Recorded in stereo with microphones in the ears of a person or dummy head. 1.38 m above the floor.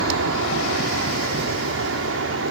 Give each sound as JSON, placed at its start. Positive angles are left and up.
{"t": 0.0, "sound": "an aircraft", "side_deg": -70}